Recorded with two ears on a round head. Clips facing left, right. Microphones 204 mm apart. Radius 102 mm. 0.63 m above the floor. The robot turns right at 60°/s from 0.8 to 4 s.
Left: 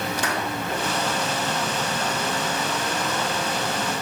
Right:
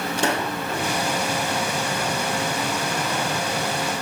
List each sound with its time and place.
0.2 s a pop: 25° right (ahead or behind), 3 m